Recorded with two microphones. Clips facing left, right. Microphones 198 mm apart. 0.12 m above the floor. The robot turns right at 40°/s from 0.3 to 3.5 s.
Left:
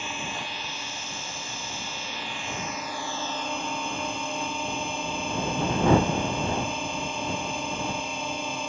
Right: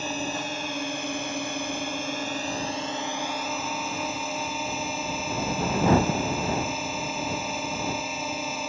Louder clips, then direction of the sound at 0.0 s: Right 6 dB; 135° right.